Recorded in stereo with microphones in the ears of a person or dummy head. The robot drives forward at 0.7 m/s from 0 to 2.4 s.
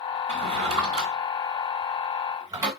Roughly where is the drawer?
Right.